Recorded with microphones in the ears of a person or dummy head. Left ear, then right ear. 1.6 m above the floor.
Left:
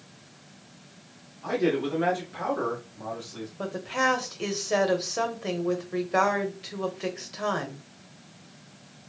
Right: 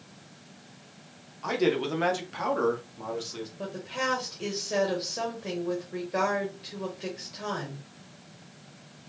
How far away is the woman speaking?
About 0.9 m.